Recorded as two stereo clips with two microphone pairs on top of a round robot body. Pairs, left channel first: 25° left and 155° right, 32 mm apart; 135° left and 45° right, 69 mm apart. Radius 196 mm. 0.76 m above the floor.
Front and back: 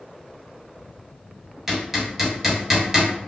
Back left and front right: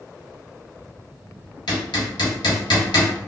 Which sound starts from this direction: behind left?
Hammering, at 1.7 s.